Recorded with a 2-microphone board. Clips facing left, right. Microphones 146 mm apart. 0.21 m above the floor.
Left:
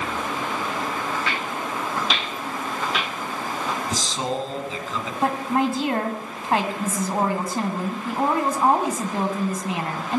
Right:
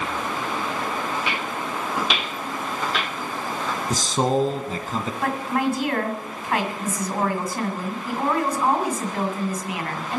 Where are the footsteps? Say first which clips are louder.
Even; 20° right (ahead or behind), 2.5 m; by 3.8 s 15° left (ahead or behind), 2 m.